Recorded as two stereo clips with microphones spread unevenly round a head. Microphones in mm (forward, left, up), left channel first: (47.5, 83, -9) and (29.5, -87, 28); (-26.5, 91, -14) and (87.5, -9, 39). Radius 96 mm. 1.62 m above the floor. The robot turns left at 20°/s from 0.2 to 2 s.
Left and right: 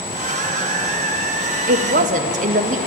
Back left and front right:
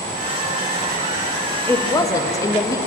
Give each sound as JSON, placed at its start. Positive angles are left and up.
{"t": 1.7, "sound": "a woman speaking", "azimuth_deg": -135, "distance_m": 0.7}